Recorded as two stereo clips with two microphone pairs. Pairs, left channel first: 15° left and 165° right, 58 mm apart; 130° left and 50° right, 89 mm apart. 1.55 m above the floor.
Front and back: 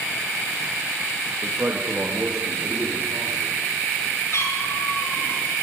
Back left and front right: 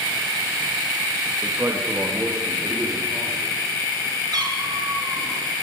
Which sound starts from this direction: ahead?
A cat meowing, at 4.3 s.